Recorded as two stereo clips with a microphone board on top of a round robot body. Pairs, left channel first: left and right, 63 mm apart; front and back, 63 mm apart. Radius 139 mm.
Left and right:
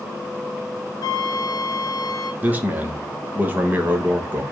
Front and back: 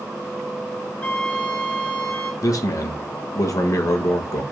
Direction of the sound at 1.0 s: 65° left.